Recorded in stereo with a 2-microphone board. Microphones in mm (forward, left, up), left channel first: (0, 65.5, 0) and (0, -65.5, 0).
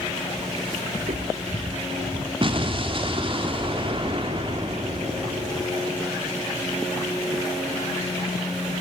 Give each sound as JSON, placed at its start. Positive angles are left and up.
{"t": 1.0, "sound": "footsteps", "side_deg": -65, "distance_m": 3.5}
{"t": 2.4, "sound": "an explosion", "side_deg": -40, "distance_m": 2.0}